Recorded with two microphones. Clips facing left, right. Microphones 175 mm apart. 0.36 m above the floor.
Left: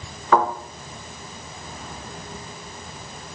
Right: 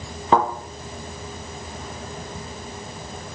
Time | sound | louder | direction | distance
0.3 | a thud | even | 25° right (ahead or behind) | 2.5 m